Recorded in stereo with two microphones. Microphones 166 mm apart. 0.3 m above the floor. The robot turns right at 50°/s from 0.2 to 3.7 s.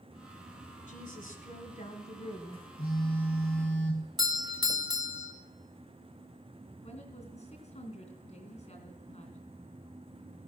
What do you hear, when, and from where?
0.9 s a woman speaking: 70° left, 3 m; by 2.7 s 160° left, 3 m
2.8 s a phone buzzing: 75° left, 3 m; by 4.1 s 120° left, 3 m
4.2 s a doorbell: 25° right (ahead or behind), 1.6 m
6.8 s a woman speaking: 45° left (ahead or behind), 3 m